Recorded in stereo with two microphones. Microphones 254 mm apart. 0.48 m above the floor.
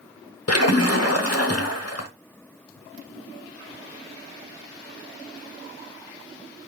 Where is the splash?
75° left (ahead or behind), 0.7 m.